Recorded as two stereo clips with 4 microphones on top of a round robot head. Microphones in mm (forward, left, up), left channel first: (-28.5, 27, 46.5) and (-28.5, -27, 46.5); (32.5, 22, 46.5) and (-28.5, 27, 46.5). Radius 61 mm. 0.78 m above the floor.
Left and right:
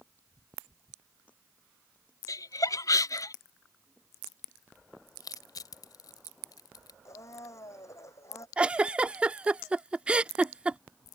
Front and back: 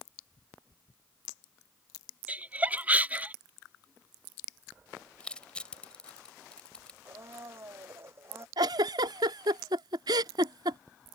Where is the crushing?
70° left.